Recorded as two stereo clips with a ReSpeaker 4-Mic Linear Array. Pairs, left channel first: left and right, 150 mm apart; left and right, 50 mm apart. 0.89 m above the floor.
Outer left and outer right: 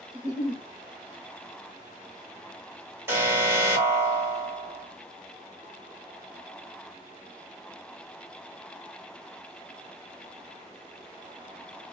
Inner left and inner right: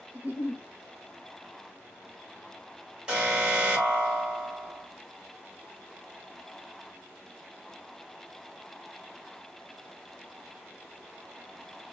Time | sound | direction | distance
0.1 | a giggle | 35° right (ahead or behind) | 2 m
3.1 | an alarm | 15° right (ahead or behind) | 3 m